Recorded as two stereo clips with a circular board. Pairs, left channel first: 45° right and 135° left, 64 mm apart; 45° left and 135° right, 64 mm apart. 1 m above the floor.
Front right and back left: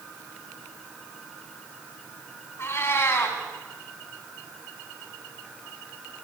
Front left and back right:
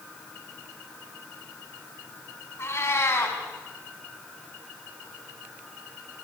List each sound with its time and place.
2.6 s a cat meowing: straight ahead, 3.5 m